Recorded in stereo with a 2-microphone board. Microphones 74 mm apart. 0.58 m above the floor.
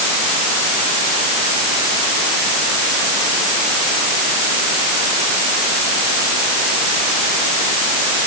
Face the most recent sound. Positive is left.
No sound to turn to.